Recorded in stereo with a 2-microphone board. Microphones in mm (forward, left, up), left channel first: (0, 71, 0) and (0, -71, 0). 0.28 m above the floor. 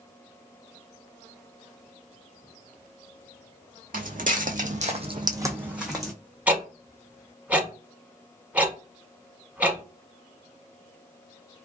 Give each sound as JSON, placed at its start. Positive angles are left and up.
{"t": 3.9, "sound": "footsteps", "side_deg": -70, "distance_m": 0.9}
{"t": 6.5, "sound": "ticking", "side_deg": -10, "distance_m": 0.7}